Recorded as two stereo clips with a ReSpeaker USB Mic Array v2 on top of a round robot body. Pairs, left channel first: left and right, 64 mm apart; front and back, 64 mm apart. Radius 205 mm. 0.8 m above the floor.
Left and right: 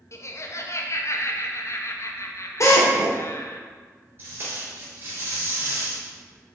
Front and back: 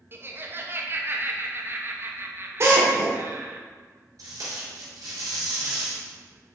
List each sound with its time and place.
0.1 s laughter: 125° left, 1.3 m
2.6 s a drill: 130° left, 1.6 m
4.2 s tape being pulled: 145° right, 2.5 m